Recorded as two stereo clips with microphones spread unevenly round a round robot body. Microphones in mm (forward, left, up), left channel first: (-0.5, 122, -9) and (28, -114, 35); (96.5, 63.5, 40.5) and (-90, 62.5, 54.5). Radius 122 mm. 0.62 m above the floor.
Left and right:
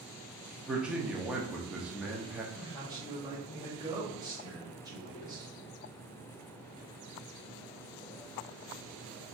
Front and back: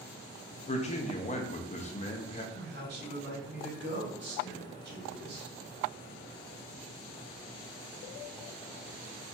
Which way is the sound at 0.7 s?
15° left.